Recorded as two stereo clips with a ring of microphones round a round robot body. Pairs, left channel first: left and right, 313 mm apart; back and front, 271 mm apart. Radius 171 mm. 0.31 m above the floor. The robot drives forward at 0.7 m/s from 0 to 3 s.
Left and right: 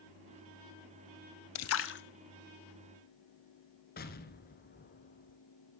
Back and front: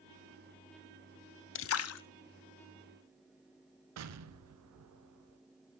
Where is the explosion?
30° left, 1.0 m.